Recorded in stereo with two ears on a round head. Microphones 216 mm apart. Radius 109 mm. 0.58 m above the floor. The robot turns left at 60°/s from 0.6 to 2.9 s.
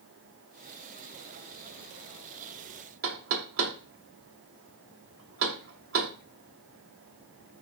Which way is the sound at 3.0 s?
55° right (ahead or behind).